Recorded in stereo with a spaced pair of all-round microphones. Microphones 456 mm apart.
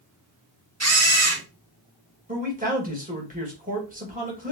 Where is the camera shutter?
35° right (ahead or behind), 2.0 m.